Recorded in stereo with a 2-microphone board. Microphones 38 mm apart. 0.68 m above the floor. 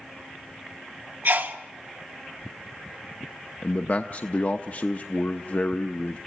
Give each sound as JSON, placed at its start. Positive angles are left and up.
{"t": 1.2, "sound": "a sneeze", "side_deg": -55, "distance_m": 1.4}
{"t": 3.6, "sound": "a man speaking", "side_deg": 45, "distance_m": 0.8}